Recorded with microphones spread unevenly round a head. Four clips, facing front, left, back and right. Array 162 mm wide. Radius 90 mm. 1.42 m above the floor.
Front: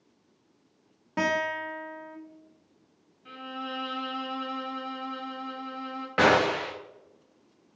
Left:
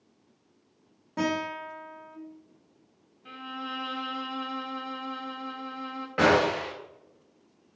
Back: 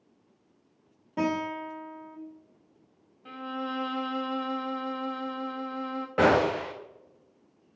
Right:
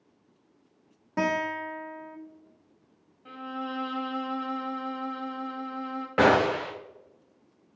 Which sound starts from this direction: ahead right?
A guitar, at 1.2 s.